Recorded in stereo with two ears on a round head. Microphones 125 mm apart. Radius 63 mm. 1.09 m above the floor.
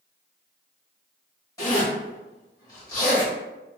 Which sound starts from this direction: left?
A zipper, at 1.6 s.